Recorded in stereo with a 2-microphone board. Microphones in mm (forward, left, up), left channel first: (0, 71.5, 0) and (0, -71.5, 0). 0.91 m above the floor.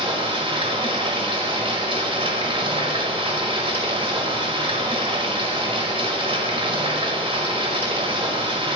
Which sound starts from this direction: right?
Running water, at 0.0 s.